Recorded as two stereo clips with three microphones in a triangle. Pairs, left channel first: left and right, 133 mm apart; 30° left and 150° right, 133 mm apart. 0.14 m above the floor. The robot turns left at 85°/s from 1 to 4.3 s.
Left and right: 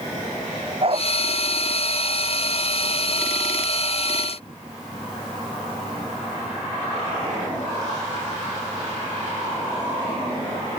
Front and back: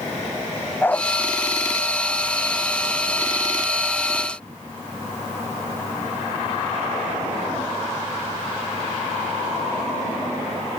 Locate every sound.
0.8 s a dog barking: 45° right; by 1.1 s 55° right